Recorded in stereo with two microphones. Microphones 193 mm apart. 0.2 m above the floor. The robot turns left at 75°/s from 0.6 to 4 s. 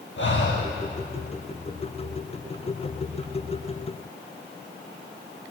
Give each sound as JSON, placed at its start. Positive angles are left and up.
{"t": 0.2, "sound": "breathing", "side_deg": 75, "distance_m": 1.7}